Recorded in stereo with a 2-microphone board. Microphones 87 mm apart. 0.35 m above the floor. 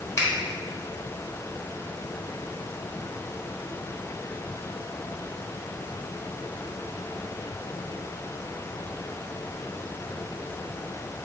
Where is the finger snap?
40° left (ahead or behind), 1.2 m.